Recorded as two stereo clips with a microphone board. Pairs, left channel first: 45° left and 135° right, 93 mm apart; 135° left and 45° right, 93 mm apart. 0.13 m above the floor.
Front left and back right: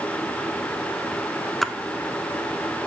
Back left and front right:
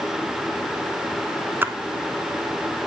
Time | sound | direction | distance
1.6 | a splash | 40° right | 0.6 m